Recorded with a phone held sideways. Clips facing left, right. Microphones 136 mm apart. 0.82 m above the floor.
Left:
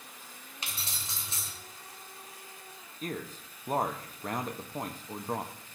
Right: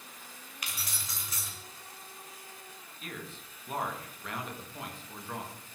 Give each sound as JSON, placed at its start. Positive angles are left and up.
{"t": 0.6, "sound": "keys jangling", "side_deg": 25, "distance_m": 2.5}
{"t": 3.0, "sound": "a man speaking", "side_deg": 40, "distance_m": 1.2}